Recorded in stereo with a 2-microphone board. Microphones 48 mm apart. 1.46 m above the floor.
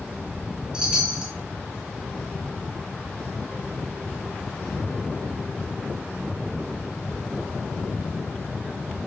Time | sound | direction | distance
0.7 | a chime | 20° right (ahead or behind) | 1.6 m